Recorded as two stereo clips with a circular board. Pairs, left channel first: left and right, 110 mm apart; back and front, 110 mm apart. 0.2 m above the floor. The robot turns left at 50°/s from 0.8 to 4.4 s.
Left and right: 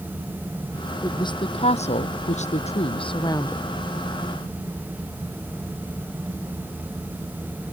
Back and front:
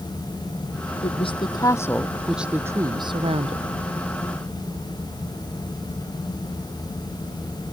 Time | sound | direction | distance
1.0 | a woman speaking | 150° left | ?